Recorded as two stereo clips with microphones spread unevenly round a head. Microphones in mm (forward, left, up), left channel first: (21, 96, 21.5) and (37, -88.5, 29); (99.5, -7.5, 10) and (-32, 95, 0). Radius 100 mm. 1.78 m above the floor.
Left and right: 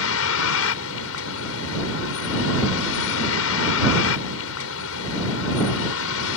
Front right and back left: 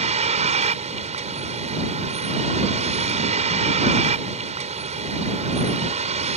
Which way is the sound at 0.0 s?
95° left.